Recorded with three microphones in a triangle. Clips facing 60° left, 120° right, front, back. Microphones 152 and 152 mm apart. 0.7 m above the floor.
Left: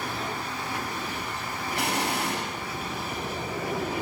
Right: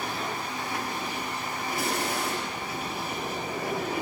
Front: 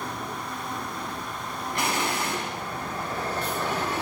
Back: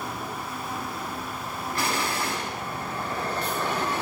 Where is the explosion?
70° left, 3.5 m.